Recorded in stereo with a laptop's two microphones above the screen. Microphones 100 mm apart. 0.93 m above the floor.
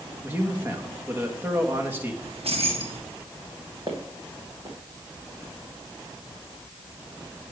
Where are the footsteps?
45° right (ahead or behind), 2 m.